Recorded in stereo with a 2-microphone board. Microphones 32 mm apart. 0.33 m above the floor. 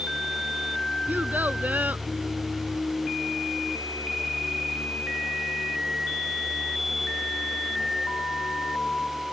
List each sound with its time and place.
1.1 s a child speaking: 70° right (ahead or behind)